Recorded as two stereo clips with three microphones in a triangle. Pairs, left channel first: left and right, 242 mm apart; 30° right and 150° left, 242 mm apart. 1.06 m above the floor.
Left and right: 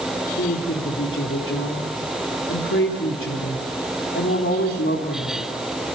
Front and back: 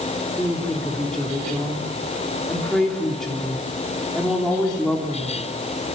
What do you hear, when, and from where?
0.4 s a woman speaking: 55° left, 3 m